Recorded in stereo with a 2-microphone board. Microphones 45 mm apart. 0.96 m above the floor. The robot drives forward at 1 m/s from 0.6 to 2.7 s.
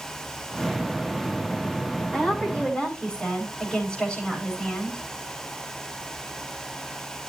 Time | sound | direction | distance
2.1 | a woman speaking | 15° left (ahead or behind) | 6 m